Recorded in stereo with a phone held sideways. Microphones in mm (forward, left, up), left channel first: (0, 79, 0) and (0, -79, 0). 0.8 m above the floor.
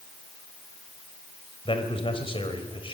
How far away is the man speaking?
About 4 m.